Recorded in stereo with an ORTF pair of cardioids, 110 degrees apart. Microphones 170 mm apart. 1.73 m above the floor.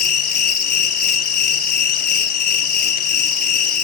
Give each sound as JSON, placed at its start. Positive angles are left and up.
{"t": 0.0, "sound": "an insect", "azimuth_deg": 65, "distance_m": 2.0}